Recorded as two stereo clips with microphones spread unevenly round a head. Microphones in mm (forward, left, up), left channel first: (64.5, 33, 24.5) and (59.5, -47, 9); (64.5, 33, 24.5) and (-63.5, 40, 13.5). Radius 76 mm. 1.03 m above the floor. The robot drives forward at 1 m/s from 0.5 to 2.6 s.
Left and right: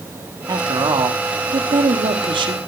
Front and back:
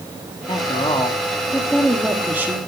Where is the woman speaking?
65° right, 3 m; by 2.6 s 110° right, 2.5 m.